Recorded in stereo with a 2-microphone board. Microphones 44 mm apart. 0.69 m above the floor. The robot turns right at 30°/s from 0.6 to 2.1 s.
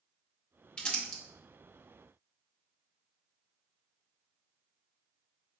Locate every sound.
0.8 s crumpling: 20° left (ahead or behind), 0.8 m; by 1.2 s 15° left (ahead or behind), 0.8 m